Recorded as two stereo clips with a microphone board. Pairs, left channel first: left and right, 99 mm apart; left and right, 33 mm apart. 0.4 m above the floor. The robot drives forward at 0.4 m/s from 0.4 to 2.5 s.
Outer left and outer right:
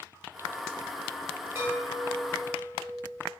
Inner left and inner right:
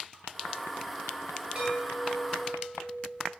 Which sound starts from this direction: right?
A chime, at 1.6 s.